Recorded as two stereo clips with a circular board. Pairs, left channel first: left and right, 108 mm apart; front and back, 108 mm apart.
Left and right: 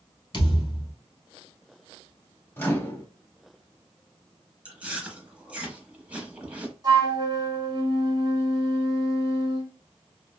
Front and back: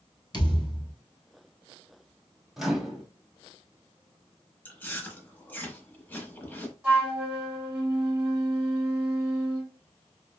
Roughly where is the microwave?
Left.